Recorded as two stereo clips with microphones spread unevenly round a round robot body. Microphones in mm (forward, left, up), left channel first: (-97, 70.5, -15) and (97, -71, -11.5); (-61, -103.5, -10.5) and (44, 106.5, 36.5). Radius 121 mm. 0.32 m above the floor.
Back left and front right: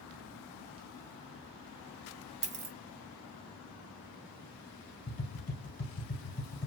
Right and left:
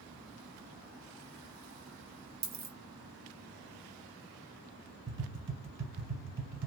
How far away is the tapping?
About 1.2 m.